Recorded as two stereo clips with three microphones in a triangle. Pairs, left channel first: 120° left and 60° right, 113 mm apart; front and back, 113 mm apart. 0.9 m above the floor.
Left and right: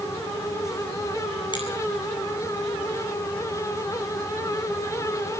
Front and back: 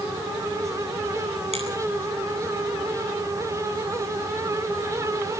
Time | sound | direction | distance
1.5 | a finger snap | 165° left | 9.5 m